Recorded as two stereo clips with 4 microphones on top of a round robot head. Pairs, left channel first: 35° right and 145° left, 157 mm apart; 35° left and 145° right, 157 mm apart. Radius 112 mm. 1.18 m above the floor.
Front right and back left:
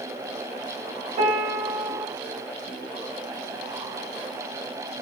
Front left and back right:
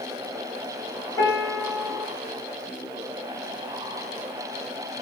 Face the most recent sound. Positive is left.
turn(degrees=110)